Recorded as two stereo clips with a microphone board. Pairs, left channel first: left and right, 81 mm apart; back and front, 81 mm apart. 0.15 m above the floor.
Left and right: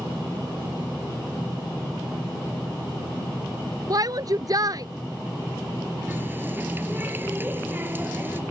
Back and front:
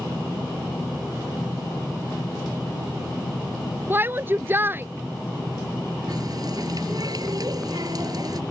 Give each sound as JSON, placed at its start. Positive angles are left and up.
{"t": 3.9, "sound": "a shout", "azimuth_deg": -60}
{"t": 6.1, "sound": "a running tap", "azimuth_deg": -30}